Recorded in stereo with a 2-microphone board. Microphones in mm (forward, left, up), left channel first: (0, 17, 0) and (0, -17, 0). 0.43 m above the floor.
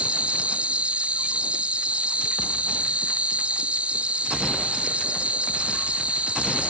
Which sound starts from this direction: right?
An insect, at 0.0 s.